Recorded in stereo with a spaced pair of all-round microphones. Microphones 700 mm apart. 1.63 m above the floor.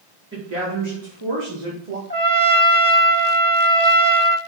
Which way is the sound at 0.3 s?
20° right (ahead or behind).